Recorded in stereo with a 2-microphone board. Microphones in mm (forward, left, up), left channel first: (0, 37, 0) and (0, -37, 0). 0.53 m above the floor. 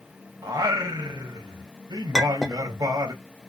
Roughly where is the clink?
Centre.